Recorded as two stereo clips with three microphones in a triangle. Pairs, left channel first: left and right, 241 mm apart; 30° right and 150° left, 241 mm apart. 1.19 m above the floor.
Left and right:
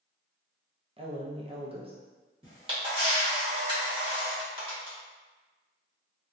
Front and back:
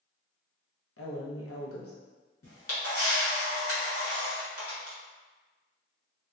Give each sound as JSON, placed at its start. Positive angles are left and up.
{"t": 1.0, "sound": "a woman speaking", "azimuth_deg": -20, "distance_m": 0.8}
{"t": 2.4, "sound": "a camera shutter", "azimuth_deg": -20, "distance_m": 1.2}